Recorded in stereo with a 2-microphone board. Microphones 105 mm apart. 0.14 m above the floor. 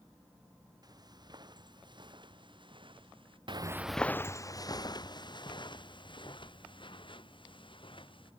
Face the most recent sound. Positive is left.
turn(degrees=55)  # may be behind; listen again after turning